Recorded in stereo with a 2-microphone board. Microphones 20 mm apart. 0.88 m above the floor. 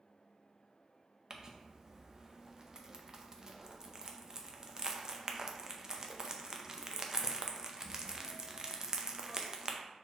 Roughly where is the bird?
No bird in this recording.